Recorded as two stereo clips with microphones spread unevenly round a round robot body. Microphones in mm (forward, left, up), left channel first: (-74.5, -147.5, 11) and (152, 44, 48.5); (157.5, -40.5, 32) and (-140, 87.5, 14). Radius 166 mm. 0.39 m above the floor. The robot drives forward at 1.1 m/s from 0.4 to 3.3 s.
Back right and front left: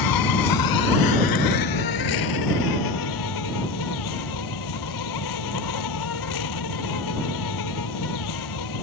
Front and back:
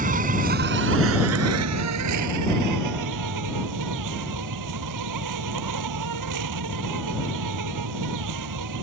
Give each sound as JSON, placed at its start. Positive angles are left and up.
{"t": 0.0, "sound": "an insect", "azimuth_deg": -135}